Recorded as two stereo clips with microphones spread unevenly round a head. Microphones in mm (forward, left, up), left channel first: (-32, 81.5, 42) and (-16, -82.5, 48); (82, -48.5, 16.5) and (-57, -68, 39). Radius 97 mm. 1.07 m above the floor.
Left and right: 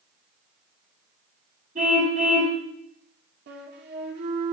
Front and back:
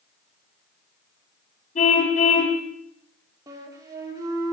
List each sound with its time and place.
1.8 s a car horn: 30° right, 3.5 m
3.5 s a flute: 105° right, 3.5 m